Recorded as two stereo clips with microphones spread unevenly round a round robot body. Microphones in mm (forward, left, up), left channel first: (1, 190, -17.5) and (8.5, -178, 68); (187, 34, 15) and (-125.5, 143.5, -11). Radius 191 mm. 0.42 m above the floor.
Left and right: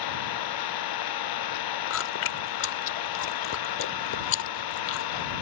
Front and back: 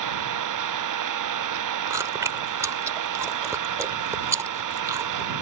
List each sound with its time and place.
0.0 s an engine running: 125° left
1.9 s chewing: 85° left